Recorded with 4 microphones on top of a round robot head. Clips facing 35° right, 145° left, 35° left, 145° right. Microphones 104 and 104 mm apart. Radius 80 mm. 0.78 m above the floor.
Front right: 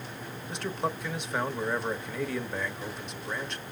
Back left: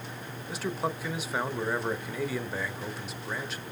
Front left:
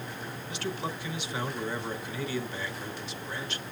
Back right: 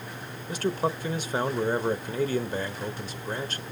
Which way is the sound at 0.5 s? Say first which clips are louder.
Even, back right 8 dB; 130° right.